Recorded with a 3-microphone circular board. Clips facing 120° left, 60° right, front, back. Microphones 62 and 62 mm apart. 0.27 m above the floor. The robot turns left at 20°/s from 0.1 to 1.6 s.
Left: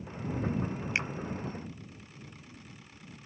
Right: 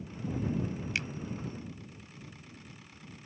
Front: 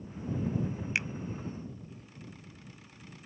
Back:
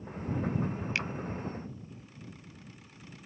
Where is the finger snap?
65° left.